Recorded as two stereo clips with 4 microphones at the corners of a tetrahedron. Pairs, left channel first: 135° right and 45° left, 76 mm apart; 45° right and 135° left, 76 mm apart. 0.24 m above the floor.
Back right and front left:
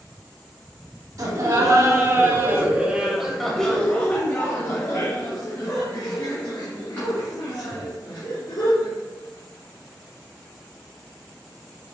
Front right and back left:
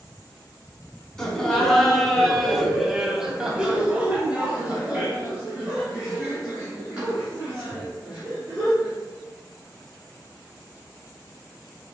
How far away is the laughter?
About 1.5 m.